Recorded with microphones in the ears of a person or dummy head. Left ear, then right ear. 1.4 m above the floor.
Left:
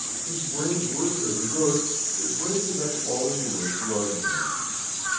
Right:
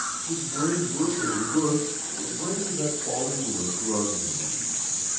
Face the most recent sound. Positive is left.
turn(degrees=40)  # may be behind; listen again after turning